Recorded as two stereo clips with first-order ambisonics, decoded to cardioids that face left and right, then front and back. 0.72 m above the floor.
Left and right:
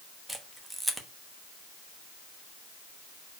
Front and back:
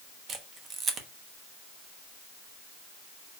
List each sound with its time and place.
0.3 s a camera shutter: 170° right, 1.0 m